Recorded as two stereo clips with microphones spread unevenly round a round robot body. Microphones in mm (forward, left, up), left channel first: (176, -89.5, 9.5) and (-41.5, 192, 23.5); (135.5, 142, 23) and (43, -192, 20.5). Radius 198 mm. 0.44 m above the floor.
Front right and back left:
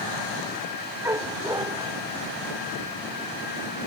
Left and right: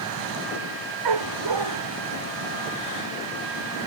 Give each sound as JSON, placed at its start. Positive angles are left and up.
{"t": 1.1, "sound": "a dog barking", "azimuth_deg": -150}